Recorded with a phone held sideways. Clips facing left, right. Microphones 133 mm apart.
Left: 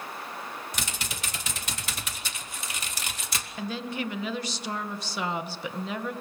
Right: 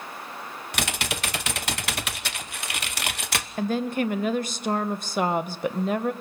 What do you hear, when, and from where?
0.7 s typing on a keyboard: 70° right (ahead or behind), 1.0 m
3.6 s a woman speaking: 50° right (ahead or behind), 1.2 m